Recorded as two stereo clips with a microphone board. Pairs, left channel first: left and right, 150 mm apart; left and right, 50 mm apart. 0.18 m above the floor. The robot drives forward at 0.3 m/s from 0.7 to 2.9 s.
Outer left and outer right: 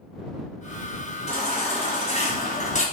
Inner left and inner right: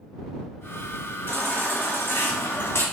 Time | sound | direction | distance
1.3 | a baby crying | 45° left (ahead or behind) | 1.5 m